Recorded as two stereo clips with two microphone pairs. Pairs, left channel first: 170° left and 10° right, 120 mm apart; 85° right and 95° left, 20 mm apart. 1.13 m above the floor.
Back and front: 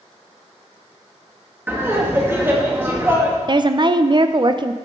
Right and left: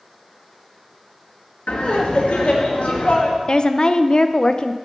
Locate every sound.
1.7 s laughter: 85° right, 1.9 m
3.5 s a woman speaking: 55° right, 0.5 m